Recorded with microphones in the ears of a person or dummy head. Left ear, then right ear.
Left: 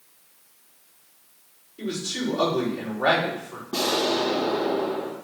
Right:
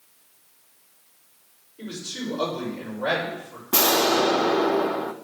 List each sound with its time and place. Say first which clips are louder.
1.8 s a man speaking: left 4 dB; 65° left (ahead or behind), 5 m
3.7 s an explosion: right 4 dB; 60° right (ahead or behind), 0.6 m